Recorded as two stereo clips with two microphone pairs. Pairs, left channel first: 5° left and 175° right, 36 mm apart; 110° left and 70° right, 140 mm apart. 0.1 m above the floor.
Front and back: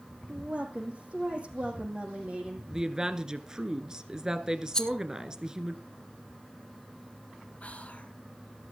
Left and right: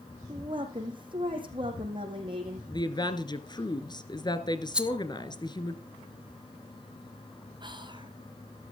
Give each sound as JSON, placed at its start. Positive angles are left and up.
{"t": 0.3, "sound": "a woman speaking", "azimuth_deg": -125, "distance_m": 5.5}
{"t": 2.7, "sound": "a woman speaking", "azimuth_deg": 125, "distance_m": 1.5}
{"t": 4.7, "sound": "a rattle", "azimuth_deg": 5, "distance_m": 0.9}
{"t": 7.6, "sound": "whispering", "azimuth_deg": -30, "distance_m": 2.0}